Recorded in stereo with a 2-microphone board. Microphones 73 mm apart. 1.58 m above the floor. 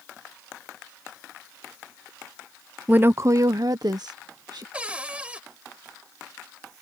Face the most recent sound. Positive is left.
turn(degrees=-15)  # may be behind; listen again after turning